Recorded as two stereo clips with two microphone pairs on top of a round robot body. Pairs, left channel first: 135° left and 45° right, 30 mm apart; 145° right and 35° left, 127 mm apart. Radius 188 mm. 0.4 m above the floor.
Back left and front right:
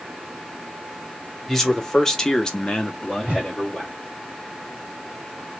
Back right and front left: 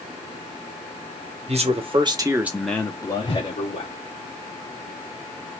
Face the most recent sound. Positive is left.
turn(degrees=-90)